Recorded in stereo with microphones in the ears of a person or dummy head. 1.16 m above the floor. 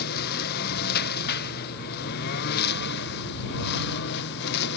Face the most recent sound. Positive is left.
turn(degrees=60)  # may be behind; listen again after turning